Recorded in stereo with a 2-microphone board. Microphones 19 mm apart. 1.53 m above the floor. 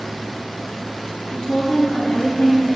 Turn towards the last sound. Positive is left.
turn(degrees=50)  # may be behind; listen again after turning